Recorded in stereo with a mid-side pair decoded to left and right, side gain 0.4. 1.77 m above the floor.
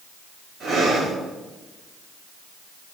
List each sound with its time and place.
0.6 s breathing: 65° right, 6.5 m